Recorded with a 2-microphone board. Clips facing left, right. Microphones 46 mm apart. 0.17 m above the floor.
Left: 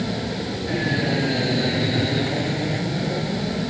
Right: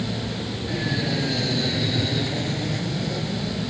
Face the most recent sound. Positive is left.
turn(degrees=20)  # may be behind; listen again after turning